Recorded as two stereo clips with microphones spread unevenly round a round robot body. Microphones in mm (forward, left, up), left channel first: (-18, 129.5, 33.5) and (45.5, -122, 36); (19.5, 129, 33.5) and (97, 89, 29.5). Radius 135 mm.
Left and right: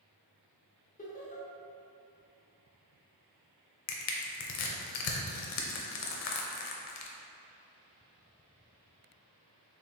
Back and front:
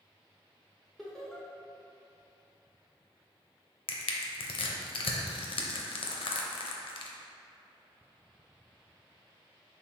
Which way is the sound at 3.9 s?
135° left.